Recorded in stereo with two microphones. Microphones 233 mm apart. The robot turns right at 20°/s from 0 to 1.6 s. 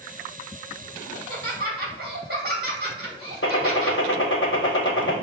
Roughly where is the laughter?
Right.